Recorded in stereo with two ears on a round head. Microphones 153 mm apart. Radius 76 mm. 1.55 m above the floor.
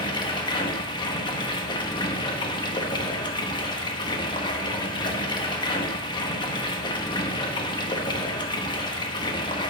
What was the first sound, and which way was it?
Running water, 25° left (ahead or behind).